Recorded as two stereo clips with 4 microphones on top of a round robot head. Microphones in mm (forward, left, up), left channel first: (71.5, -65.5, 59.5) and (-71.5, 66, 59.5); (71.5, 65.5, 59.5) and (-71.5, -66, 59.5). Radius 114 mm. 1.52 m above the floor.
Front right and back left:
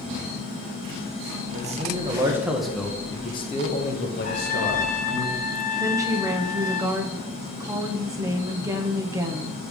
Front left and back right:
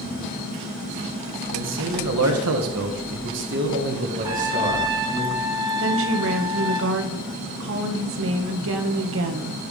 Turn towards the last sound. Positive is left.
turn(degrees=-150)